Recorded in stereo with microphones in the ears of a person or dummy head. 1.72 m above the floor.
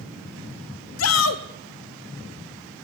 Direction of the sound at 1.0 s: 80° left.